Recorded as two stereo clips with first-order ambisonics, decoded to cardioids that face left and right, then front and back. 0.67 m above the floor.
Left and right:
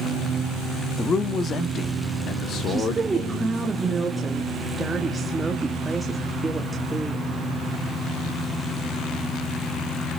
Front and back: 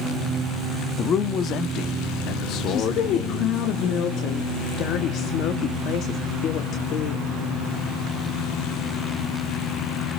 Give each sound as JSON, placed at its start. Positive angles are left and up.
{"t": 1.0, "sound": "a man speaking", "azimuth_deg": 35, "distance_m": 1.1}
{"t": 2.7, "sound": "a woman speaking", "azimuth_deg": -15, "distance_m": 1.4}